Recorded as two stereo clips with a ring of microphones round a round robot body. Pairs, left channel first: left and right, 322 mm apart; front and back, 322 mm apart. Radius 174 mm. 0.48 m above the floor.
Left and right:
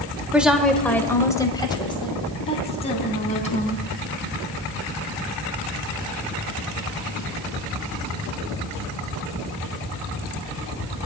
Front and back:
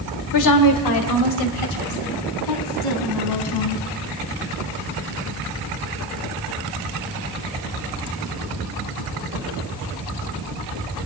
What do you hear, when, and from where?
0.3 s a woman speaking: 5° right, 1.5 m; by 3.9 s 20° left, 4 m